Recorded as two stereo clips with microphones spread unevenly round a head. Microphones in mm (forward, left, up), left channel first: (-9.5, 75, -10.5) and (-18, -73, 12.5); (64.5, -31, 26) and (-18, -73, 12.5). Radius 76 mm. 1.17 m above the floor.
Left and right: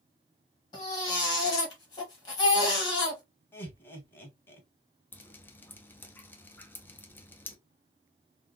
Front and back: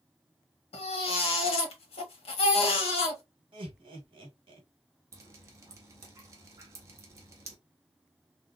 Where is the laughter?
160° left, 1.4 m.